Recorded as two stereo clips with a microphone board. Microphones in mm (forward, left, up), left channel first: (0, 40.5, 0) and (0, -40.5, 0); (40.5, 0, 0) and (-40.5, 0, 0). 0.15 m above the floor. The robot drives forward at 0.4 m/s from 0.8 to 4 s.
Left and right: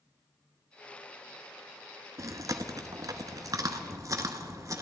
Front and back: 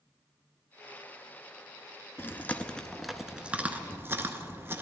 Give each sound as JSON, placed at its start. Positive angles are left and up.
{"t": 2.2, "sound": "chewing", "azimuth_deg": -55, "distance_m": 0.7}